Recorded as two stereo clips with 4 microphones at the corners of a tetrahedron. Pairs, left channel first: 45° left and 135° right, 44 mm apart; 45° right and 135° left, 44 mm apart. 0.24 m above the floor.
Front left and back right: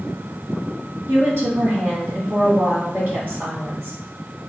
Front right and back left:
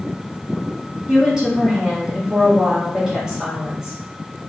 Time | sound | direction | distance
1.1 | a woman speaking | 150° right | 1.9 m